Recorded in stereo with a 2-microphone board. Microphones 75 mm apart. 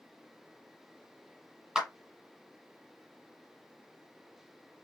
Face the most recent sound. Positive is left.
turn(degrees=-10)  # may be behind; listen again after turning